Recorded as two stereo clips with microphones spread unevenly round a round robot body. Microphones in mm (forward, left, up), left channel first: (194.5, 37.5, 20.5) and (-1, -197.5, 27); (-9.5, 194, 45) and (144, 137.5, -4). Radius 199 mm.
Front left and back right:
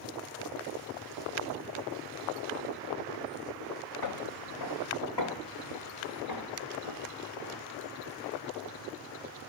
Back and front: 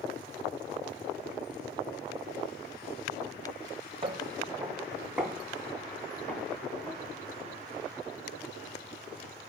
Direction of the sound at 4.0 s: 45° left.